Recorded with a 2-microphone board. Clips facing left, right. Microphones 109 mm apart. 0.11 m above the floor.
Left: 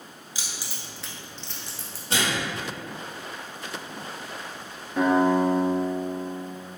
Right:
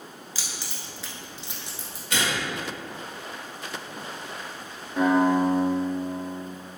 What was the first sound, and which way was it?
Keys jangling, 20° left (ahead or behind).